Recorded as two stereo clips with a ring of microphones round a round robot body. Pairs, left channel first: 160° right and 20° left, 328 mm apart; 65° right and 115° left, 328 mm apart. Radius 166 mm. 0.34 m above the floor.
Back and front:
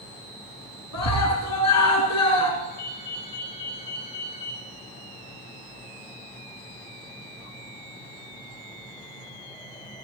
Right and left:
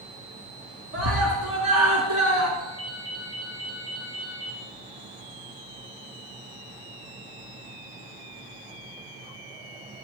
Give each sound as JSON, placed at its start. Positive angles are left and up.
{"t": 0.9, "sound": "a scream", "azimuth_deg": 160, "distance_m": 4.0}
{"t": 2.6, "sound": "a ringtone", "azimuth_deg": 165, "distance_m": 6.0}